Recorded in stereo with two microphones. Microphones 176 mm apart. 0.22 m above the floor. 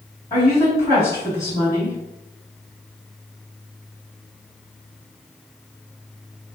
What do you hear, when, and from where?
0.3 s a woman speaking: 20° left (ahead or behind), 1.7 m